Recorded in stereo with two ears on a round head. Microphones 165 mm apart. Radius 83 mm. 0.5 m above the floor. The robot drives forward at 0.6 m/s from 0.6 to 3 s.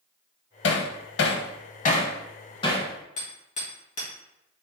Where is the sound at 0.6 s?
65° left (ahead or behind), 0.6 m; by 2.9 s 25° left (ahead or behind), 1.3 m.